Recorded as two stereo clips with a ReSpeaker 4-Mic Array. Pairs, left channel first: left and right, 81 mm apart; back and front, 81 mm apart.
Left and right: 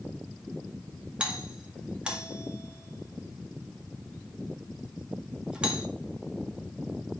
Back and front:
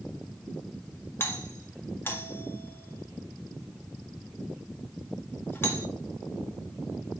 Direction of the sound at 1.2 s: 155° right.